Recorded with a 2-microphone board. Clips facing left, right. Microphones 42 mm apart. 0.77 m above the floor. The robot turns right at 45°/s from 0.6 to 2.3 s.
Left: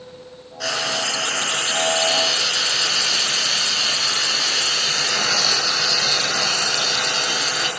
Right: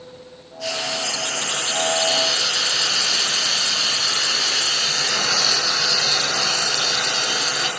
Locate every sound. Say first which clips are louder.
0.6 s frying: left 2 dB; 95° left, 7.5 m; by 7.7 s 170° left, 7.5 m